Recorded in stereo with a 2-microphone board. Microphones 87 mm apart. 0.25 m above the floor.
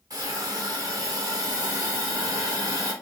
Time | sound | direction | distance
0.1 | a hiss | 45° right (ahead or behind) | 2.5 m